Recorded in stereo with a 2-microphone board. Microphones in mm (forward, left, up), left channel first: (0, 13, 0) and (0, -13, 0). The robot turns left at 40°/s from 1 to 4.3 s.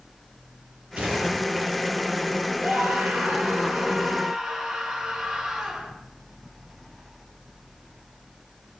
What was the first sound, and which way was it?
A gunshot, 65° right (ahead or behind).